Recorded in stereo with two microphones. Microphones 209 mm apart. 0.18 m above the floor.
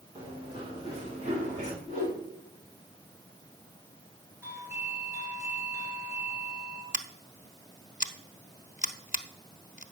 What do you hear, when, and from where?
0.1 s running footsteps: 25° right (ahead or behind), 5 m; by 1.7 s 35° right (ahead or behind), 5 m
1.8 s a whoosh: 40° right (ahead or behind), 6.5 m
4.4 s a doorbell: 15° right (ahead or behind), 3.5 m
6.9 s scissors: 40° left (ahead or behind), 0.6 m